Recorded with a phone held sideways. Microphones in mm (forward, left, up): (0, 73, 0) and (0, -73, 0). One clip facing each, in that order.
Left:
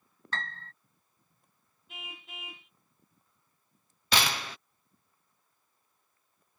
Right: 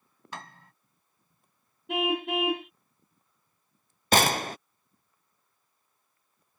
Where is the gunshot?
45° right (ahead or behind).